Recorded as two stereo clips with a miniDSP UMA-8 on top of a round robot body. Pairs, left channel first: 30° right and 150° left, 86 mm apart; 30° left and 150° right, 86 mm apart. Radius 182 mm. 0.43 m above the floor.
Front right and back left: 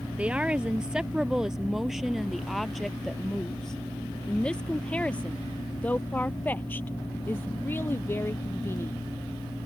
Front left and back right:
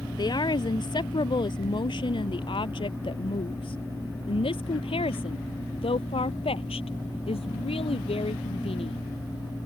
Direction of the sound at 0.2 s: 70° left.